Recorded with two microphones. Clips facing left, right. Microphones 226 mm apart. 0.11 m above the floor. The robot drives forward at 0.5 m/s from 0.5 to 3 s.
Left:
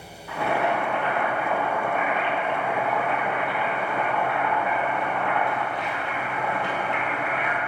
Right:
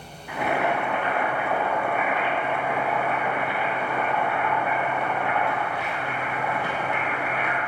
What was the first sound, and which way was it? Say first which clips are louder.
Boiling: even; 20° right (ahead or behind).